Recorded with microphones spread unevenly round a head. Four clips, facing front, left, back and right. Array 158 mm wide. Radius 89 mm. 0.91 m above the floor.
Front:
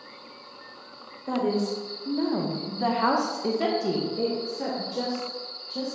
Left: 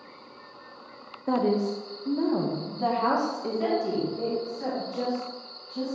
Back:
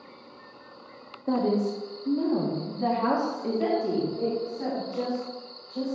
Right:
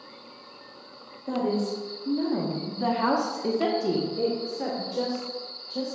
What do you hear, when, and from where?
1.3 s a woman speaking: 80° left, 1.2 m; by 6.0 s 55° right, 1.9 m